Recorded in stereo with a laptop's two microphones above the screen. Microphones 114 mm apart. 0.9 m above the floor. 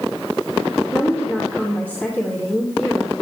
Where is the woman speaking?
15° left (ahead or behind), 2.5 m.